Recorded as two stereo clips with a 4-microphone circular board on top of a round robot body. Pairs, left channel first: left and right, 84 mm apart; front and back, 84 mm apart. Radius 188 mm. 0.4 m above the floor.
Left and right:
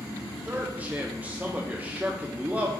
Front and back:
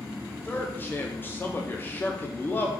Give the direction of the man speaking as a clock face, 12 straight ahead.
1 o'clock.